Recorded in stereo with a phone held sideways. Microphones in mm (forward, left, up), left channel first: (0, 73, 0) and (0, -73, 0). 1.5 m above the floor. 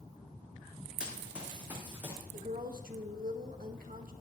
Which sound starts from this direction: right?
A woman speaking, at 2.3 s.